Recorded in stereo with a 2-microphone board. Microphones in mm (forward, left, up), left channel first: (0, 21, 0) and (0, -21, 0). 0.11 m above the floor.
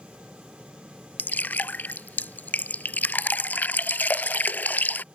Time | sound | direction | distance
1.2 | dripping | 45° left (ahead or behind) | ?